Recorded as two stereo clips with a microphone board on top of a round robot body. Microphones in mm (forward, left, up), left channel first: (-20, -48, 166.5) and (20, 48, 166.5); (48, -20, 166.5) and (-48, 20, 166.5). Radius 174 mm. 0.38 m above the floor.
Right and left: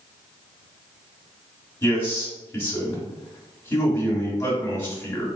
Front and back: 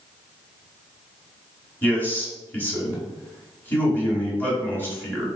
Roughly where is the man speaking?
Right.